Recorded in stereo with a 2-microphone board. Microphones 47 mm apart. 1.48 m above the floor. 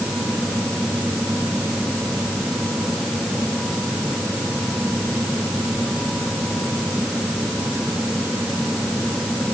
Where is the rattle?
No rattle in this recording.